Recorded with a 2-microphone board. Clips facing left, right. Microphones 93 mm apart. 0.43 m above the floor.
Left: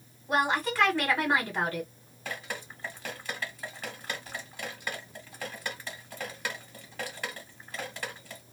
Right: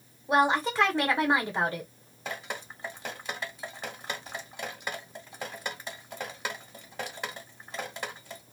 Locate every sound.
0.3 s a woman speaking: 20° right (ahead or behind), 1.6 m
2.2 s dripping: 20° right (ahead or behind), 1.1 m